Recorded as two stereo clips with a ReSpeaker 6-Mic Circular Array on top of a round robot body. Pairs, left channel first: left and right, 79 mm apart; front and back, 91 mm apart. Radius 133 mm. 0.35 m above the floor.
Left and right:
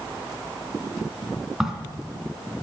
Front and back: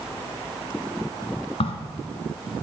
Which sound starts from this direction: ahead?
A crack, at 1.6 s.